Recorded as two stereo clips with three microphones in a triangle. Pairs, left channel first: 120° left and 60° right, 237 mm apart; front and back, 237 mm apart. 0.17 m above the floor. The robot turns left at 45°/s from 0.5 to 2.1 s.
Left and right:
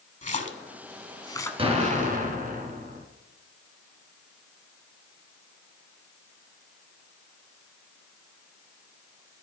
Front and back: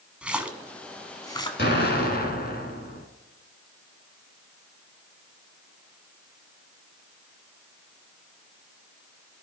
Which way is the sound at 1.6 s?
Straight ahead.